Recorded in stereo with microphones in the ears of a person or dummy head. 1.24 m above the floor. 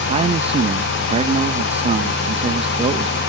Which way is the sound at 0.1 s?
35° right (ahead or behind).